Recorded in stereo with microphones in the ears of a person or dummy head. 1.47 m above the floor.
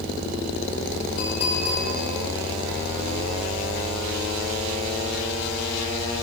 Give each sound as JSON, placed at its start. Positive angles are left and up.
{"t": 1.2, "sound": "a clink", "side_deg": 85, "distance_m": 5.5}